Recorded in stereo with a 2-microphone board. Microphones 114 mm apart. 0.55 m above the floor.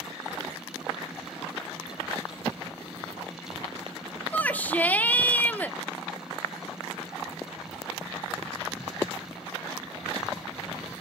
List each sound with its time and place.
4.3 s a shout: 15° left (ahead or behind), 1.2 m